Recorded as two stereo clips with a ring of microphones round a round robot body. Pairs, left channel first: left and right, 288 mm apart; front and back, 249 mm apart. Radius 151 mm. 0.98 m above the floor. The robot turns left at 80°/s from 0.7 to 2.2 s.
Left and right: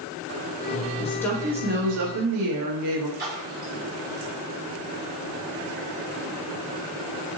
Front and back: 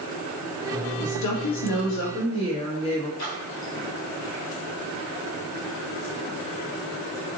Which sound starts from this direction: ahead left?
A woman speaking, at 1.0 s.